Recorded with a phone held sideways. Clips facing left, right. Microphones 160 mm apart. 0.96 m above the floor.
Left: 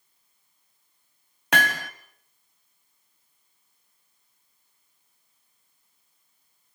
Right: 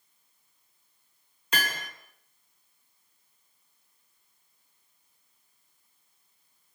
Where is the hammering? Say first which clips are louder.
Left 8 dB; 75° left (ahead or behind), 2.0 m.